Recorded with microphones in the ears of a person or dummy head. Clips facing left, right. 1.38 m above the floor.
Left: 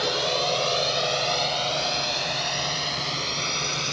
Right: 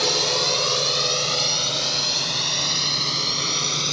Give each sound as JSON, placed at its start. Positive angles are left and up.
{"t": 0.0, "sound": "a drone", "side_deg": -70}